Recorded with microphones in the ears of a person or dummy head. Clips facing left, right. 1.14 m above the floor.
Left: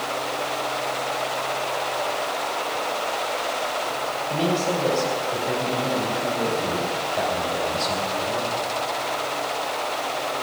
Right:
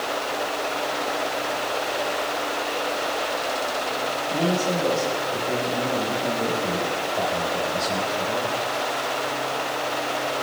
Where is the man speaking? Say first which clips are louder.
Even; 20° left (ahead or behind), 5 m.